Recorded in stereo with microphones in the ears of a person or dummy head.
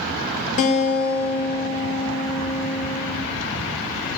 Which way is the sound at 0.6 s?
40° left (ahead or behind).